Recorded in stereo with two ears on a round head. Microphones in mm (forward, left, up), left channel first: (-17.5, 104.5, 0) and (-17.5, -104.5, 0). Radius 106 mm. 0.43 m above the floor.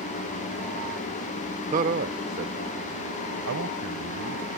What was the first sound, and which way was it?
A man speaking, 30° right (ahead or behind).